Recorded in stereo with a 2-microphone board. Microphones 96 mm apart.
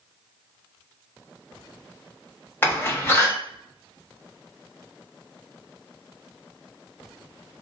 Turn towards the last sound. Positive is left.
turn(degrees=20)  # may be behind; listen again after turning